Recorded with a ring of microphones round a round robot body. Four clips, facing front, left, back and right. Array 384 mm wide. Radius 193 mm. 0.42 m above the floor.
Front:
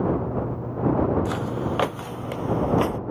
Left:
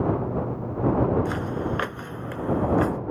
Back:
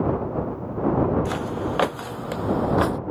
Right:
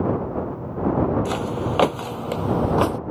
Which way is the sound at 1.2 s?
90° right.